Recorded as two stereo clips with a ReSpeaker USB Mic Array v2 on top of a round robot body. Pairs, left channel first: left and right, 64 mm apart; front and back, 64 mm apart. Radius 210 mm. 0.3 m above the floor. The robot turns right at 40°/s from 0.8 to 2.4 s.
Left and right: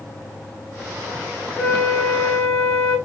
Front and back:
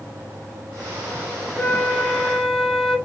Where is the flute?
55° left, 1.1 m; by 3.0 s 85° left, 1.1 m.